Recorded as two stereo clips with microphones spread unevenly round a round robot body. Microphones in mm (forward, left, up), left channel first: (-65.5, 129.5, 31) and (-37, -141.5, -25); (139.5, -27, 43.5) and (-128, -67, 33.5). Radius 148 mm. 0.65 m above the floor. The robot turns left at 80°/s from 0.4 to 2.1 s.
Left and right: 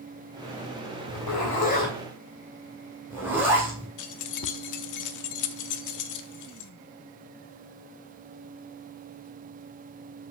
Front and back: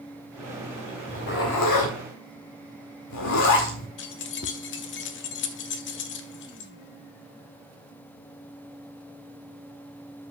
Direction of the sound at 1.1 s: 80° left.